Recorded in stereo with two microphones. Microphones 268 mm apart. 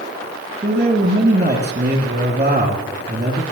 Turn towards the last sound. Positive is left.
turn(degrees=-40)  # may be behind; listen again after turning